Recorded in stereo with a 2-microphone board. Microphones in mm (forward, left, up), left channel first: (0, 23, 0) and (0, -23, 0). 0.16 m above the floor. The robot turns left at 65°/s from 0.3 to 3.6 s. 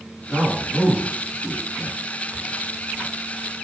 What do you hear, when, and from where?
0.3 s a man speaking: 5° left (ahead or behind), 1.3 m; by 2.0 s 25° right (ahead or behind), 1.3 m